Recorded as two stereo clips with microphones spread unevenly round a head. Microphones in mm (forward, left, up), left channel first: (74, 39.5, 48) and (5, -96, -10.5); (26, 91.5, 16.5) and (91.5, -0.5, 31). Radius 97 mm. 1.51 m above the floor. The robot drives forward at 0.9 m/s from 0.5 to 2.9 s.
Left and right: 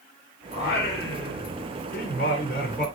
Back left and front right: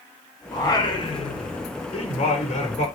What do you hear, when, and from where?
0.5 s singing: 70° left, 3.5 m; by 2.9 s 110° left, 3.5 m